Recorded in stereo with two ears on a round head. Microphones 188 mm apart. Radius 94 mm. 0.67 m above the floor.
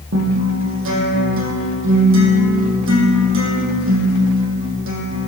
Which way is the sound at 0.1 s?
70° right (ahead or behind).